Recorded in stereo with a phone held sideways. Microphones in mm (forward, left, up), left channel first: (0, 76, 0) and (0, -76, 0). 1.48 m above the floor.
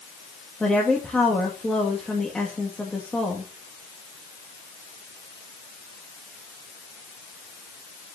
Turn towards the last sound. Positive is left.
turn(degrees=5)  # may be behind; listen again after turning